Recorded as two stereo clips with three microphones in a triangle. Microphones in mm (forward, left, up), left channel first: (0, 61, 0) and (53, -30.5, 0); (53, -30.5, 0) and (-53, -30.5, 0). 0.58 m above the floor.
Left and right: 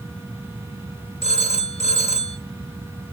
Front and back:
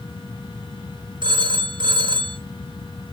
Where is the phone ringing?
140° left, 1.3 m.